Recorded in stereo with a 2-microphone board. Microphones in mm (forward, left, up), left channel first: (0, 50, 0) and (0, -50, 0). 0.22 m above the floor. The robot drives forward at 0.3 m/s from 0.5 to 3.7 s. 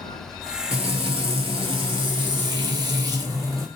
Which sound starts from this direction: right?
Frying, at 0.7 s.